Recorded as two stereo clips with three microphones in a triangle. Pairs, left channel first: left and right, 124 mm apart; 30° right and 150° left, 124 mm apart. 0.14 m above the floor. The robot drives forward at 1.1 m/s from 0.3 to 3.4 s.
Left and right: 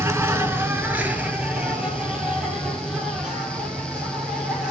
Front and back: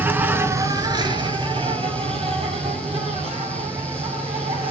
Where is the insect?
145° right, 1.0 m; by 4.7 s 175° right, 4 m.